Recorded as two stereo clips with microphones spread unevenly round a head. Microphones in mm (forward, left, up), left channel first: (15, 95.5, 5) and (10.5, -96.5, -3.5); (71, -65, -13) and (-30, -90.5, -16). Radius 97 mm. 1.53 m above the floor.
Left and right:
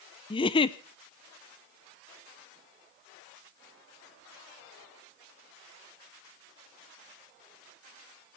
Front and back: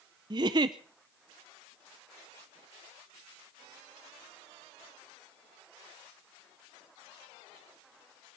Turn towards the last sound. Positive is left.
turn(degrees=145)